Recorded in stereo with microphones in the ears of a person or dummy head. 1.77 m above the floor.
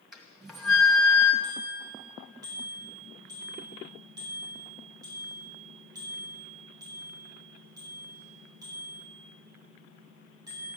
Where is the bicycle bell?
25° right (ahead or behind), 8 m.